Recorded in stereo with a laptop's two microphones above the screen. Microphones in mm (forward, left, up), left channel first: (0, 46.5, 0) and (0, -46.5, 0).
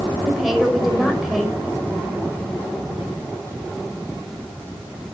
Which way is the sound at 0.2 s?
5° right (ahead or behind).